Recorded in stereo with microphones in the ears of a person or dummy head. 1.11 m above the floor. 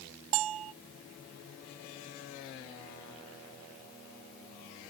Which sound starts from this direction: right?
A bell, at 0.3 s.